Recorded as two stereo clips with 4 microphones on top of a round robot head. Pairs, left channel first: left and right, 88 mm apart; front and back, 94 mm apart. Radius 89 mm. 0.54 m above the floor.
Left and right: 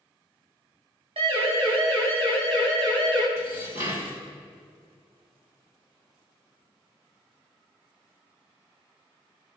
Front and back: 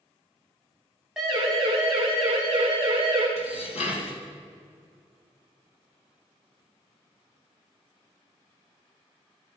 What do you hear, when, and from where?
1.2 s a siren: 95° right, 5 m; by 3.3 s 100° right, 7.5 m
3.4 s dishes clattering: 25° right, 3 m